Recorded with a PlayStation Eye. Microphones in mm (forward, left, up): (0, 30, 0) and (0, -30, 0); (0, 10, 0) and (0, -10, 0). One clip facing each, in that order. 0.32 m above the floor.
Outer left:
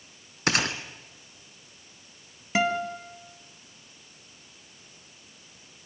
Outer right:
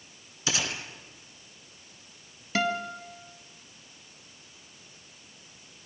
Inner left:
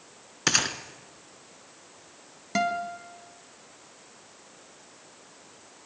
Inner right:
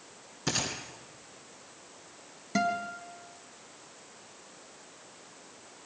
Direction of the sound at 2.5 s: 20° left (ahead or behind).